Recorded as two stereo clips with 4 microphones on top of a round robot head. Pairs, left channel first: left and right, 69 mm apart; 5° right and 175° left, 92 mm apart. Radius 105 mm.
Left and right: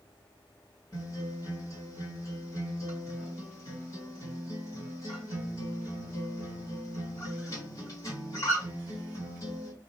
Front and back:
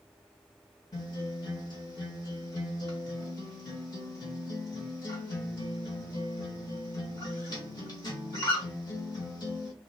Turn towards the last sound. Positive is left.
turn(degrees=40)